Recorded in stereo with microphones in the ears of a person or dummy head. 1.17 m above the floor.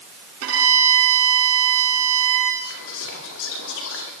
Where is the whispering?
75° left (ahead or behind), 2 m.